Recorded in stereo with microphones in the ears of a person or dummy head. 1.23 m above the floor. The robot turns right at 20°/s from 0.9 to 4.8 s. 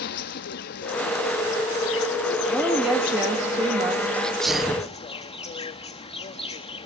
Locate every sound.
0.0 s an insect: 70° left, 0.9 m; by 6.9 s 150° left, 0.9 m
2.5 s a woman speaking: straight behind, 1.7 m; by 4.0 s 150° right, 1.7 m
4.1 s a sneeze: 5° left (ahead or behind), 0.7 m; by 4.9 s 5° right (ahead or behind), 0.7 m